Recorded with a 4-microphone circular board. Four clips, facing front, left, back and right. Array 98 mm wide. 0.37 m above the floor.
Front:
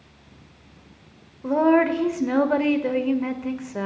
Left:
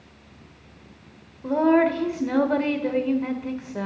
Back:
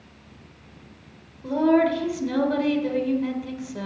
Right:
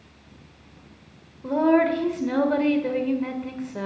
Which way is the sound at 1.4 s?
5° left.